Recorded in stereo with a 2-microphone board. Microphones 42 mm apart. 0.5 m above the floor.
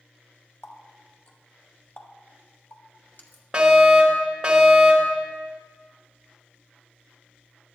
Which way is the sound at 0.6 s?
65° left (ahead or behind).